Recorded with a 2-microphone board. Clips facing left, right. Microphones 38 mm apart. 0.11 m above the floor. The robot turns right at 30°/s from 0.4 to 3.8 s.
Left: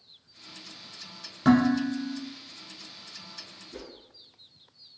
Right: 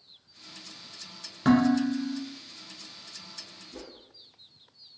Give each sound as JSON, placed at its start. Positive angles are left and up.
{"t": 1.4, "sound": "dishes clattering", "side_deg": -5, "distance_m": 0.7}
{"t": 3.7, "sound": "a whoosh", "side_deg": 35, "distance_m": 0.9}